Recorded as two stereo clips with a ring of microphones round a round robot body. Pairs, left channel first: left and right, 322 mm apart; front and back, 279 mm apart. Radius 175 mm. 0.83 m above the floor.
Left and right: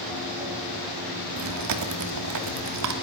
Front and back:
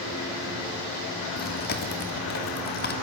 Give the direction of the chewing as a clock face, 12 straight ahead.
2 o'clock.